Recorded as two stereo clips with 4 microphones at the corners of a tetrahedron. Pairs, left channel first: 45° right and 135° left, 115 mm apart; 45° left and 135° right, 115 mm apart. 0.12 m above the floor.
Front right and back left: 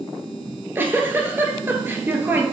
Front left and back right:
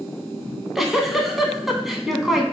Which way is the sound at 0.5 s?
140° left.